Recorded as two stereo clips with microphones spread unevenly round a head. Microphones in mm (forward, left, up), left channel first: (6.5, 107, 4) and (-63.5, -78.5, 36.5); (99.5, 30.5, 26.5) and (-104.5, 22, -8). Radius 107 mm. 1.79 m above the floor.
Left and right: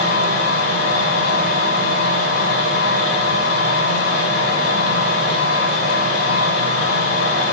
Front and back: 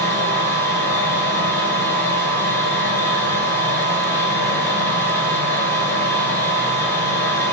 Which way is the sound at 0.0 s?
80° left.